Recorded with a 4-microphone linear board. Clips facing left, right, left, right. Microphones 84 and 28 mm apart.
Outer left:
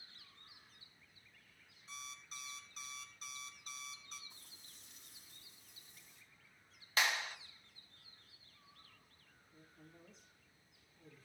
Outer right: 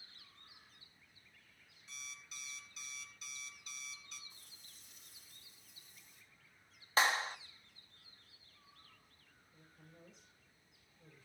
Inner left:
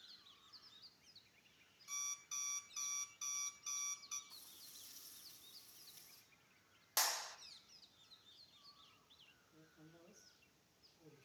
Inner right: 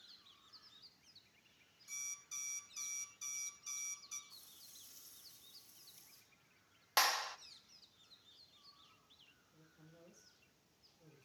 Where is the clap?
35° right (ahead or behind), 0.9 m.